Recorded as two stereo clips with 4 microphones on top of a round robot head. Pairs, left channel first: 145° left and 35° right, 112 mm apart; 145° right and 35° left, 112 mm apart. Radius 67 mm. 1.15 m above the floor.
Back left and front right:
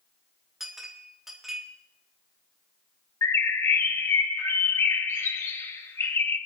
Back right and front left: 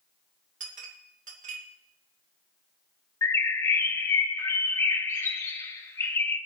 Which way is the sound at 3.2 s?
Straight behind.